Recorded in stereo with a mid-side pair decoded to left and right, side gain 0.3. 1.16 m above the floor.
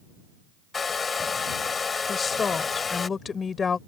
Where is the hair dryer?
50° left.